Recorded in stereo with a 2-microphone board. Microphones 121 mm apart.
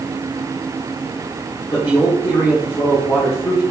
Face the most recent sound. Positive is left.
turn(degrees=35)  # may be behind; listen again after turning